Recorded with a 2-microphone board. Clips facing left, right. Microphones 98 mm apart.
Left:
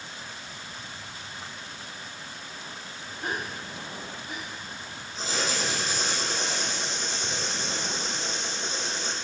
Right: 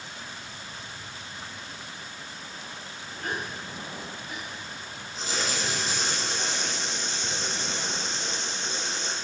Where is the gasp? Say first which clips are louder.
Even; 20° left (ahead or behind), 1.8 m.